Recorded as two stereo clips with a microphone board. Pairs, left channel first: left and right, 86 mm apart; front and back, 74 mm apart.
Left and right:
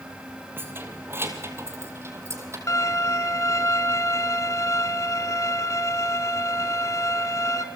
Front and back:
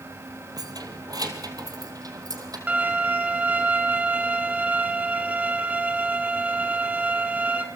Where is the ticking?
No ticking in this recording.